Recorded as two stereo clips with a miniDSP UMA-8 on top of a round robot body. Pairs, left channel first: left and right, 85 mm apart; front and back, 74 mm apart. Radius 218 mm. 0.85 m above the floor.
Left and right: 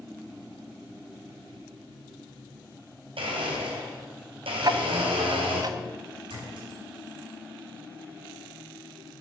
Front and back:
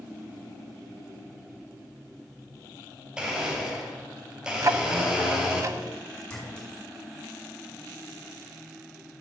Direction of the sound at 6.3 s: 75° right.